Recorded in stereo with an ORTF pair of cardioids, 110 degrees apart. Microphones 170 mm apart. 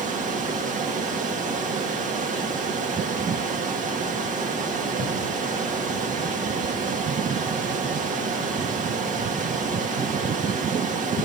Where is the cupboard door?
50° right, 5.5 m.